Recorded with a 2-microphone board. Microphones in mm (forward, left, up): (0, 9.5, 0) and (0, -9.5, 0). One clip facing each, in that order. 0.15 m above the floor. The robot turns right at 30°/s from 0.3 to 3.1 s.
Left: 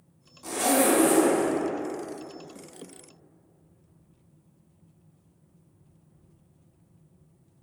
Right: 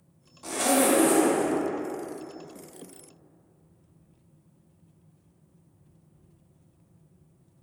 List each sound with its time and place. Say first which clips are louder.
0.4 s a zipper: even; 15° right (ahead or behind), 0.5 m; by 1.6 s 5° right (ahead or behind), 0.5 m